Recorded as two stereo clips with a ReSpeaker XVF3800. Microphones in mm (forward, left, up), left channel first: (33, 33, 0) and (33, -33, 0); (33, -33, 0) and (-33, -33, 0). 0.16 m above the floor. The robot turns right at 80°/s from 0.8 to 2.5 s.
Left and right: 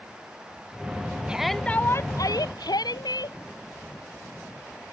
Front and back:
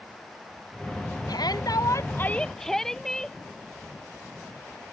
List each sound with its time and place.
1.3 s a shout: 15° right; by 3.4 s 85° left